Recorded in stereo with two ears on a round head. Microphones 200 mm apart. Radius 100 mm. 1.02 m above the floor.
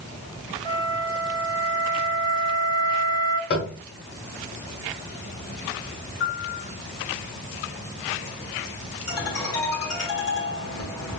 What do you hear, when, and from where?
0.7 s a flute: 20° left (ahead or behind), 0.8 m
3.5 s tapping: 50° left (ahead or behind), 1.4 m
6.2 s a piano: 55° left (ahead or behind), 1.7 m
9.1 s a ringtone: 65° left (ahead or behind), 1.9 m